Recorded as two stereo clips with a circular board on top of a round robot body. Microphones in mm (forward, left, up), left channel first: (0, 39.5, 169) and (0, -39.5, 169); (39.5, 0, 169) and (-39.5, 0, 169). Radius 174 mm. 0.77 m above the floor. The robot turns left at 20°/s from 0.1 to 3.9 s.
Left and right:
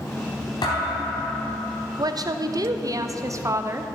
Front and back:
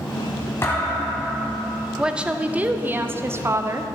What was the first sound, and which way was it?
A thud, 60° left.